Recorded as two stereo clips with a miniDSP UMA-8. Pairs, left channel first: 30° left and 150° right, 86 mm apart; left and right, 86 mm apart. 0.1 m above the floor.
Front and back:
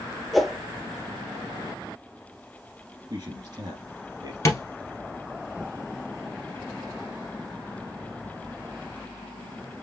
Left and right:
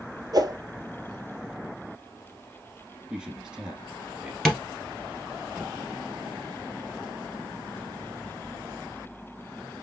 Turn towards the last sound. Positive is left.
turn(degrees=5)